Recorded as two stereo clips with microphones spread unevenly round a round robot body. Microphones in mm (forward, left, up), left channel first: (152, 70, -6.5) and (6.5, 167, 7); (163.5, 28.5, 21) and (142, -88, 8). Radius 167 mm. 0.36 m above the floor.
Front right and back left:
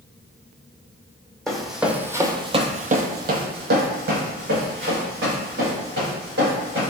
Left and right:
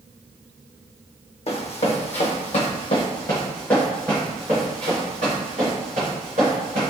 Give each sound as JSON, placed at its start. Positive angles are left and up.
{"t": 1.5, "sound": "running footsteps", "azimuth_deg": 55, "distance_m": 1.0}